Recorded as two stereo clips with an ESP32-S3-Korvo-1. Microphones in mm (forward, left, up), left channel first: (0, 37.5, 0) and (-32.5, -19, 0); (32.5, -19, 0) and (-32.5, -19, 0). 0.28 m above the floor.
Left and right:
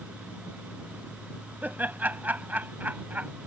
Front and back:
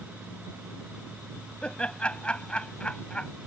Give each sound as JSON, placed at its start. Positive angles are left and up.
{"t": 1.6, "sound": "laughter", "azimuth_deg": -65}